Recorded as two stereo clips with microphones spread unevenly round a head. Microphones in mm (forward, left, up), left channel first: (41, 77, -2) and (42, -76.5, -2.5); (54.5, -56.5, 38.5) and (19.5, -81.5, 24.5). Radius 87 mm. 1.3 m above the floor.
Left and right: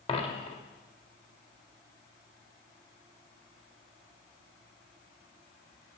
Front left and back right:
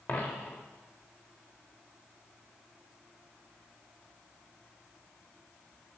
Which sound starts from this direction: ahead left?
A dropped coin, at 0.1 s.